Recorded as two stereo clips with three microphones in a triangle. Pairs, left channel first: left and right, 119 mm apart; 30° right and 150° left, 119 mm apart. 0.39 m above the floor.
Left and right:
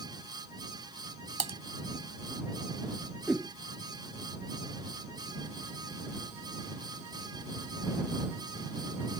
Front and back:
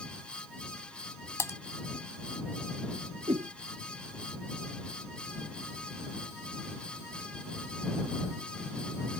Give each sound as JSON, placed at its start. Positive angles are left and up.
{"t": 1.4, "sound": "typing on a keyboard", "azimuth_deg": -95}
{"t": 3.3, "sound": "a whoosh", "azimuth_deg": -175}